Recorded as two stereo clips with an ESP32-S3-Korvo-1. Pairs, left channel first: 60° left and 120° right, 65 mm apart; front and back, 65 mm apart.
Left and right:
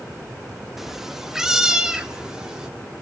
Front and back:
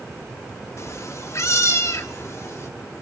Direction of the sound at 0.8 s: 35° right.